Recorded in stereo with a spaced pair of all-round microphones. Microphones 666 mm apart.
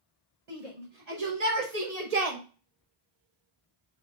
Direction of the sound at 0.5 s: 70° right (ahead or behind).